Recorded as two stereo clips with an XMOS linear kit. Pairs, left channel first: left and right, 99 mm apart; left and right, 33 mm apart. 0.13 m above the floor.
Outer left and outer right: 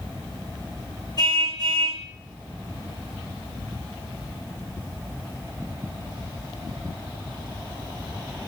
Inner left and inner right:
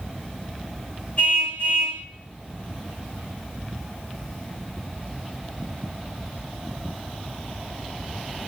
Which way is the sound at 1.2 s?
45° left (ahead or behind).